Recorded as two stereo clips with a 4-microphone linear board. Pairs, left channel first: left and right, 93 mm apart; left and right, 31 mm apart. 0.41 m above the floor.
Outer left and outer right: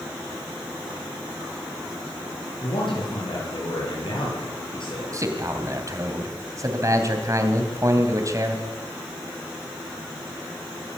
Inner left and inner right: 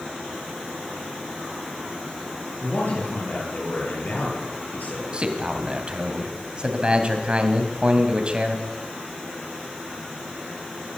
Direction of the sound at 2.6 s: 60° left (ahead or behind).